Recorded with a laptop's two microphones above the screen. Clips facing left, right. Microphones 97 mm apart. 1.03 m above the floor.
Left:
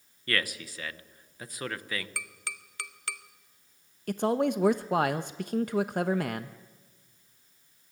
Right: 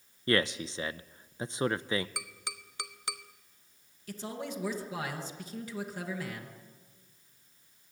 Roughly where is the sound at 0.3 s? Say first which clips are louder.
Right 4 dB; right.